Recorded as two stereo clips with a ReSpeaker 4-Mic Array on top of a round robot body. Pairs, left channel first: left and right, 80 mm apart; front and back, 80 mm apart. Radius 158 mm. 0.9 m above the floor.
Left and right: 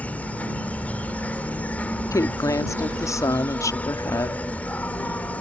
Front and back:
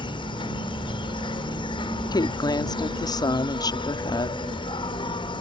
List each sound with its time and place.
0.0 s an insect: 15° left
2.1 s a woman speaking: 40° left